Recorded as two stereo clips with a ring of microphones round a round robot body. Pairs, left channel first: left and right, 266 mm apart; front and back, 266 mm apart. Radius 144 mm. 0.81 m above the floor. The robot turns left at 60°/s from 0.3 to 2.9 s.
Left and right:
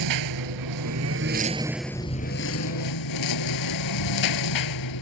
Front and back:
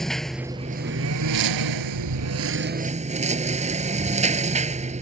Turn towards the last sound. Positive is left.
turn(degrees=115)